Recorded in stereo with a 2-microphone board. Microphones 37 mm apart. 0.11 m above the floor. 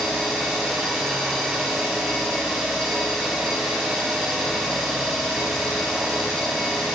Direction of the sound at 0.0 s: Centre (ahead or behind).